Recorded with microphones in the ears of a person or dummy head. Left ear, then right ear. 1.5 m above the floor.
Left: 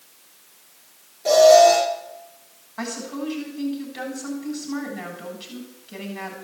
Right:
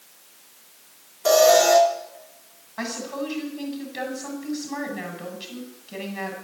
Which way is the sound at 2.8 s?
15° right (ahead or behind).